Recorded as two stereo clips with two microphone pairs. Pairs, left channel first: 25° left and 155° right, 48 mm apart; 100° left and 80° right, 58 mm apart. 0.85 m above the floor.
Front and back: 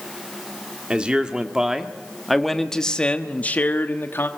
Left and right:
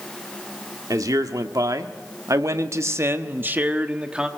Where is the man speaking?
90° right, 1.7 m; by 4.3 s 5° right, 1.3 m.